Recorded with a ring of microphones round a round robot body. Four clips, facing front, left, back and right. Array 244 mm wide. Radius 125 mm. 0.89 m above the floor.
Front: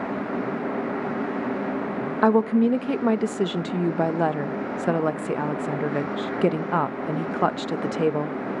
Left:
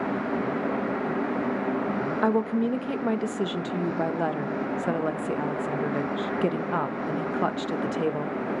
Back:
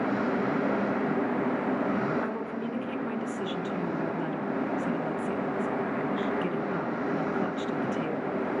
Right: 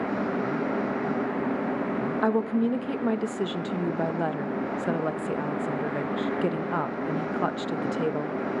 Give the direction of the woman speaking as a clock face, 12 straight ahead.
12 o'clock.